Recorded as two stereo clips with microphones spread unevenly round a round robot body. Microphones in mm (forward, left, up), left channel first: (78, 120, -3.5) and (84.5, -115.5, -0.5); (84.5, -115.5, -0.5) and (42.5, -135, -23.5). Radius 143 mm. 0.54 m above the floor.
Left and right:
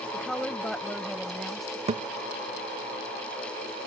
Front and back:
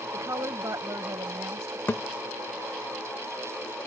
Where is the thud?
25° right.